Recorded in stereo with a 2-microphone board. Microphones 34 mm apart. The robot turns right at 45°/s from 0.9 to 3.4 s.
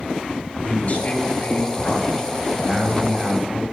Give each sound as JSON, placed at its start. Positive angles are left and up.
{"t": 0.6, "sound": "a man speaking", "azimuth_deg": 120, "distance_m": 3.0}